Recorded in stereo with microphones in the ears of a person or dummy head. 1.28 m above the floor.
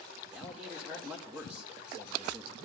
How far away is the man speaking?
About 0.8 m.